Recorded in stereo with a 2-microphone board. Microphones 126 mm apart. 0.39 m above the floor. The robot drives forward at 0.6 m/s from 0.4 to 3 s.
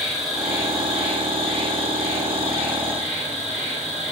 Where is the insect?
5° right (ahead or behind), 3.5 m; by 4.1 s centre (ahead or behind), 5 m.